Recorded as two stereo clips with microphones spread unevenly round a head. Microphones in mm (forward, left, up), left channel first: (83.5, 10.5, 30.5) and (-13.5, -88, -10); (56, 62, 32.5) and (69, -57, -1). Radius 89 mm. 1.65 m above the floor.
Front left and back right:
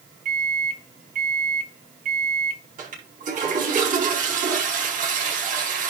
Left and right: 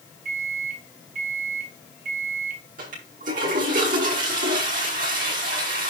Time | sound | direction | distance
0.2 | a microwave | 110° right | 1.8 m
2.8 | a toilet flushing | 110° right | 5 m